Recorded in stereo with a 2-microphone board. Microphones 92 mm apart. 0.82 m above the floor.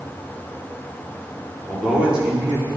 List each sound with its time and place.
1.7 s a man speaking: 10° right (ahead or behind), 1.8 m